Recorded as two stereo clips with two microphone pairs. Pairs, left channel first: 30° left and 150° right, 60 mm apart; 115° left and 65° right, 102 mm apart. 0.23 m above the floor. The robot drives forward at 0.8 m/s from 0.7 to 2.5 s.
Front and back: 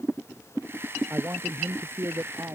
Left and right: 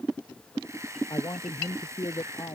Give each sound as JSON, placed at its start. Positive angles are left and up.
{"t": 1.1, "sound": "a man speaking", "azimuth_deg": 160}